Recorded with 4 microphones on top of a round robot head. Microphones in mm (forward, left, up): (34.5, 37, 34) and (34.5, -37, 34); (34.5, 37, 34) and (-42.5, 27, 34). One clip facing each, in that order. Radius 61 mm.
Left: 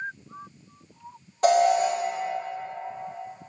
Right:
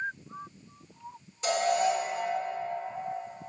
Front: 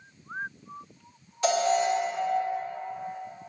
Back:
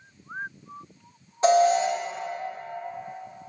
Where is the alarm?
130° left, 1.5 m.